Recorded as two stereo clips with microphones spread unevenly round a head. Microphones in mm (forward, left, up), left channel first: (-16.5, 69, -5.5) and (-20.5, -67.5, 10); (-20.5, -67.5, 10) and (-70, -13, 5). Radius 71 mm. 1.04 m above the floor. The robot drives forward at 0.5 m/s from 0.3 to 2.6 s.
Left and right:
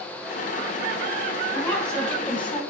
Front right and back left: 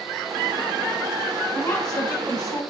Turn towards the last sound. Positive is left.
turn(degrees=15)